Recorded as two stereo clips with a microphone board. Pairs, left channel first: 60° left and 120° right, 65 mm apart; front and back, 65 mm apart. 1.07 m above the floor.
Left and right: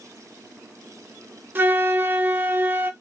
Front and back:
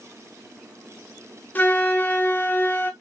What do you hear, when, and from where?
1.6 s a flute: 60° right, 0.7 m